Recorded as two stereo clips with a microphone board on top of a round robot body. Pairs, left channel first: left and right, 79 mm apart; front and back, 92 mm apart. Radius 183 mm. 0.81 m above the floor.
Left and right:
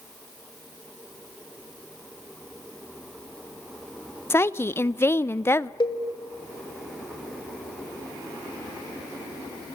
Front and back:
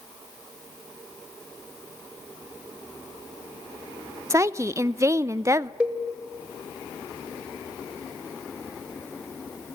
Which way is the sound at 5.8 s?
105° left.